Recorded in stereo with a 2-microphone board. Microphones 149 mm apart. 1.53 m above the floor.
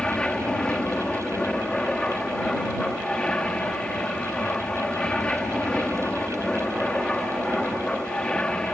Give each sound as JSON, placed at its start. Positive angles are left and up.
{"t": 0.0, "sound": "an aircraft", "side_deg": 5}